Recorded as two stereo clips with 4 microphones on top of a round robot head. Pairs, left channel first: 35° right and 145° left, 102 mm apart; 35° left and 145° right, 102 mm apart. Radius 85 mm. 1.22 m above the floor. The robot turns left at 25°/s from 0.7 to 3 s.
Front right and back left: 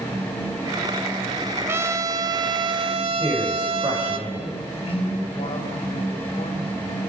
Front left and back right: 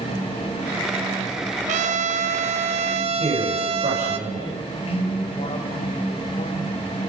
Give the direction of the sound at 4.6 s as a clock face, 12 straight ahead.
12 o'clock.